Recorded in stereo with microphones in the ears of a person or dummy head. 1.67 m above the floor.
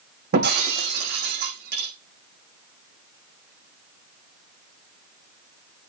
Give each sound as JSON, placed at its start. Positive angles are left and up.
{"t": 0.3, "sound": "breaking glass", "side_deg": -45, "distance_m": 6.0}